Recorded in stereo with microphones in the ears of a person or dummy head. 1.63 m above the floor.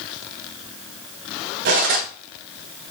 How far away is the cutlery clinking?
About 1.1 m.